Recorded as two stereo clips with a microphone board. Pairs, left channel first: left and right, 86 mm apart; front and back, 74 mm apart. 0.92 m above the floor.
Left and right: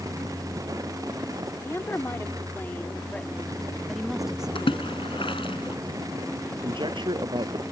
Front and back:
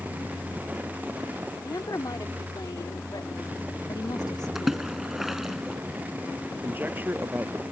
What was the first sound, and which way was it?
A woman speaking, 30° left.